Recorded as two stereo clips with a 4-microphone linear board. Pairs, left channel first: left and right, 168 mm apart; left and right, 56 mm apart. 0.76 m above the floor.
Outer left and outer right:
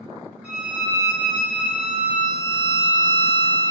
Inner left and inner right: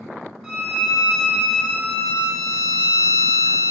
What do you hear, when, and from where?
0.4 s a violin: 5° right (ahead or behind), 0.8 m